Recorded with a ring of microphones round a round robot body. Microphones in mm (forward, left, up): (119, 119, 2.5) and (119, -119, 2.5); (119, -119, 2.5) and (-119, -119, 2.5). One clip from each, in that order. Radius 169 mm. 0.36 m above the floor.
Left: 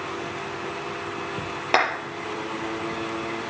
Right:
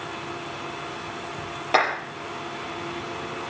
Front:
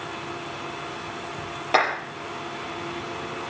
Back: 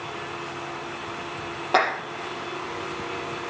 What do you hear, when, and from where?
1.7 s a clap: 60° left, 6 m